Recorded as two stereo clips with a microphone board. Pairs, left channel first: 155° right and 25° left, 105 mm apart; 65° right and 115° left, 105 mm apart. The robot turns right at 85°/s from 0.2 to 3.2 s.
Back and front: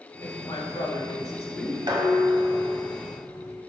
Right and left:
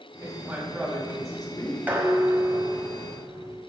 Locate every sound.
0.2 s a woman speaking: 150° left, 2 m; by 1.8 s 75° right, 2 m
1.9 s dishes clattering: 45° left, 1.1 m; by 3.6 s 155° left, 1.1 m